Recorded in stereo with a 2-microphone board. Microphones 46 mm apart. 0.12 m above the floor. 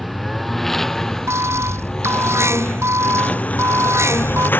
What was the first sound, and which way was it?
A lawn mower, 5° left (ahead or behind).